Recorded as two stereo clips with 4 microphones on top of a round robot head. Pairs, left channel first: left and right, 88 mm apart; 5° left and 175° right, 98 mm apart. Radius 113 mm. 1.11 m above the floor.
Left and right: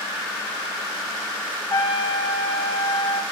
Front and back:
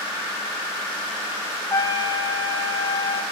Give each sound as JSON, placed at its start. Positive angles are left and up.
{"t": 1.7, "sound": "a trumpet", "azimuth_deg": 55, "distance_m": 5.0}